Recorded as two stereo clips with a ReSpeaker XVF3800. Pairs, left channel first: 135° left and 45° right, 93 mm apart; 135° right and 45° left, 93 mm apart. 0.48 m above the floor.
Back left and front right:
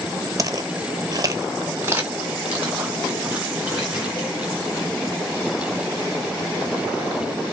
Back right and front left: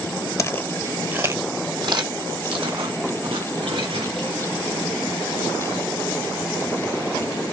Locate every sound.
0.4 s footsteps: 90° right, 0.7 m; by 4.4 s 35° left, 3 m